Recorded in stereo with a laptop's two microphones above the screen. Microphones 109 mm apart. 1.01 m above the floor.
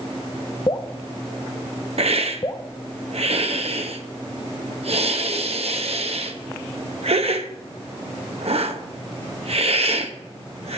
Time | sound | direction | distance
0.7 | dripping | 40° left (ahead or behind) | 0.6 m
2.0 | a hiss | 70° right (ahead or behind) | 0.7 m